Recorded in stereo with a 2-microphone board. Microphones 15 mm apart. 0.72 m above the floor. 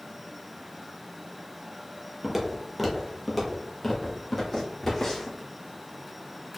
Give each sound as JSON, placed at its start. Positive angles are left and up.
{"t": 2.2, "sound": "footsteps", "side_deg": -20, "distance_m": 1.0}